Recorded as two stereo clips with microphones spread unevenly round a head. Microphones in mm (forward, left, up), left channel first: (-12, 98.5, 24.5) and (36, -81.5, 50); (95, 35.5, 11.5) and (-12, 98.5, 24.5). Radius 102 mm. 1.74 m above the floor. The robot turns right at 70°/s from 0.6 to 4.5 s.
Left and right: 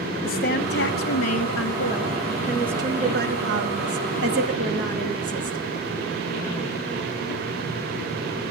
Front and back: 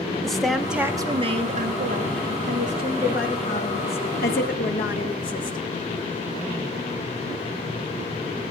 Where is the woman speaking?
60° left, 3 m; by 5.6 s 25° right, 3 m.